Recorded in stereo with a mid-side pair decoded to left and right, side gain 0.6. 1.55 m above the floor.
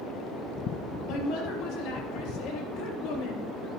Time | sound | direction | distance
1.1 | a woman speaking | 70° left | 3.5 m